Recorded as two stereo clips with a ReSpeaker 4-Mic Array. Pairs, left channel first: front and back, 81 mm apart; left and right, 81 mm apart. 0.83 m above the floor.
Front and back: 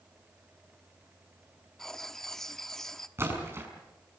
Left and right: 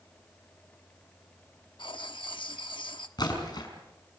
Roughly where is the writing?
Left.